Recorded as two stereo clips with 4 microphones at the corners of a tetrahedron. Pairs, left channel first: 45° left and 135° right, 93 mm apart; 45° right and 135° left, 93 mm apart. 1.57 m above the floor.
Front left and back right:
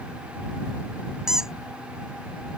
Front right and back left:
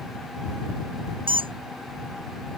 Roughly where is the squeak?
Behind left.